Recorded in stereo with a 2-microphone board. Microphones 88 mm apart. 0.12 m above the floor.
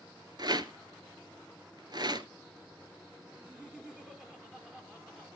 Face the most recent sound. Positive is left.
turn(degrees=-10)  # may be behind; listen again after turning